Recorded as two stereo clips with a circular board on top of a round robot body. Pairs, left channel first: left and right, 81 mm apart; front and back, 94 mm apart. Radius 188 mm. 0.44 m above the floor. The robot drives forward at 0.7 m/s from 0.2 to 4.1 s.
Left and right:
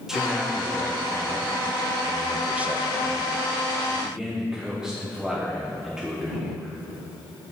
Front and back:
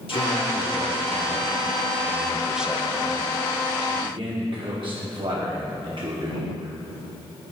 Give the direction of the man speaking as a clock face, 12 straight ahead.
12 o'clock.